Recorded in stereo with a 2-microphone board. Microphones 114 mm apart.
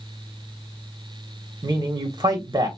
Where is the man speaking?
35° right (ahead or behind), 1.3 m.